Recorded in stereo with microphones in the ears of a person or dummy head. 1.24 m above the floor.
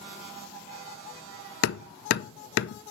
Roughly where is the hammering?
Left.